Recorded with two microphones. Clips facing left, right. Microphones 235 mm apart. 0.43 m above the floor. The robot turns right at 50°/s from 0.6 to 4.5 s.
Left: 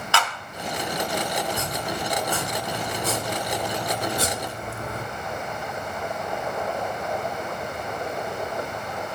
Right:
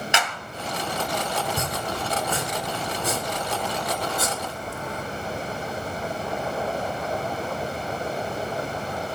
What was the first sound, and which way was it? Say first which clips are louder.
A clap: left 3 dB; 20° right (ahead or behind).